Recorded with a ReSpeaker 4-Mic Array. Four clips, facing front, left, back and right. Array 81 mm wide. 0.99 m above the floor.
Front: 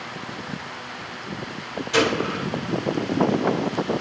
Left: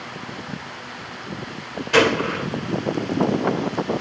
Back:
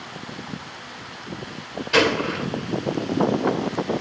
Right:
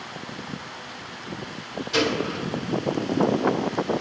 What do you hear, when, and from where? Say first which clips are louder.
1.9 s a gunshot: left 7 dB, back 2 dB; 110° left, 1.3 m